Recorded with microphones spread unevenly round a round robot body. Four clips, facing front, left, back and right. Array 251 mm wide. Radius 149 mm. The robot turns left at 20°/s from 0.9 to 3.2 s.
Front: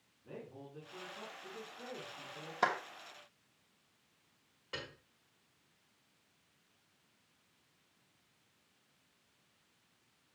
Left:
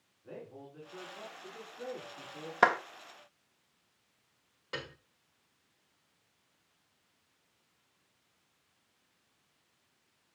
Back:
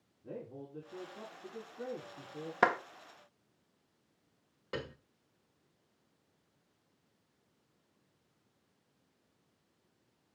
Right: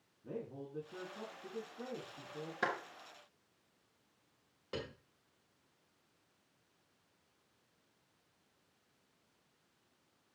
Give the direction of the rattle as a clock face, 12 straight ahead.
I don't hear a rattle.